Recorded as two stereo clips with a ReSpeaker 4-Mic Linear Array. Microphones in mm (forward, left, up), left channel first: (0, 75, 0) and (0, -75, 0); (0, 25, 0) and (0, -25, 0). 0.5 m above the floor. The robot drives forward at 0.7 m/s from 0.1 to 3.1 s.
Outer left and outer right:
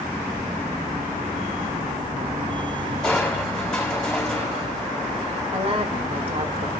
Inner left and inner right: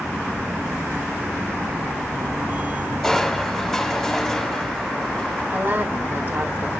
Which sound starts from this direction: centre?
Crushing, at 3.0 s.